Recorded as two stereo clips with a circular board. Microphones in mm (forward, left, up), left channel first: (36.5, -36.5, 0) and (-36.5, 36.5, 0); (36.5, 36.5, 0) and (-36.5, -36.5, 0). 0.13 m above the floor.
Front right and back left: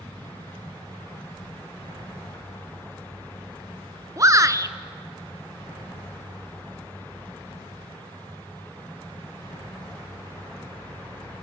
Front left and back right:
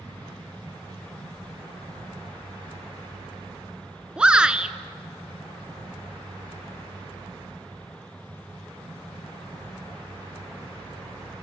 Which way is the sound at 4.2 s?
150° left.